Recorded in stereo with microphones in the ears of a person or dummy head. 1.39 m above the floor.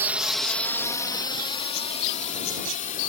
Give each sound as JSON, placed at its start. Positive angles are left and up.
{"t": 0.0, "sound": "a drone", "side_deg": -10}